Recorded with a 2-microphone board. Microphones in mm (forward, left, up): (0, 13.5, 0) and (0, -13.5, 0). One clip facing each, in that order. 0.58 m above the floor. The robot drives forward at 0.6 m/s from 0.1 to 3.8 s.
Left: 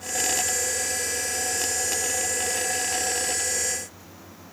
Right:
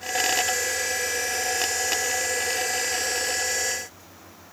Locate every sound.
Only background noise.